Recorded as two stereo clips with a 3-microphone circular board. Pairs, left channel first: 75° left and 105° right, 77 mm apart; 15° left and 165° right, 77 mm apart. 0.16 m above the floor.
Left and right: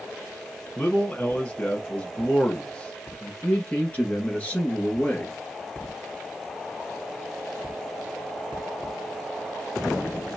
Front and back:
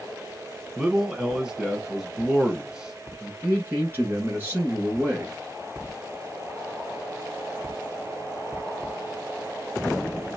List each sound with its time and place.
0.8 s a man speaking: 130° left, 1.1 m
3.4 s a man speaking: 145° left, 2.0 m